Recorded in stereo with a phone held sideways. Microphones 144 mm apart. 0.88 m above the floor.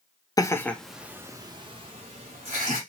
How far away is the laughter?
About 0.6 m.